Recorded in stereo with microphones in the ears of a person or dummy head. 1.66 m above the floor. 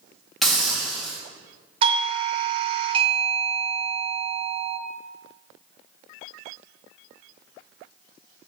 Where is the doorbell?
35° right (ahead or behind), 0.7 m.